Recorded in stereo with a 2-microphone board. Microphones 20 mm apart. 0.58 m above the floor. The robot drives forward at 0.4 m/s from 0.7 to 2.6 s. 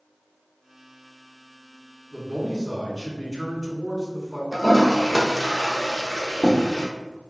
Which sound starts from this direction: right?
A man speaking, at 2.1 s.